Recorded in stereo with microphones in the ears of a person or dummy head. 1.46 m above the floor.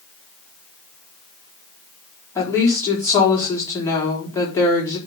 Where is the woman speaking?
20° left (ahead or behind), 4.5 m.